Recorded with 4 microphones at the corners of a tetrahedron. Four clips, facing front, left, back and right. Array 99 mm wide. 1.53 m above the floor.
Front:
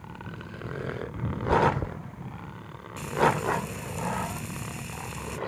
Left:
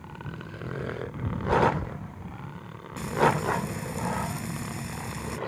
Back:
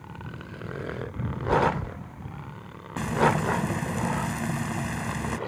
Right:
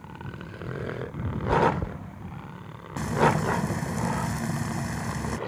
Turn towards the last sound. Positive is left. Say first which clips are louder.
# right 1 dB, back 1 dB
turn(degrees=-150)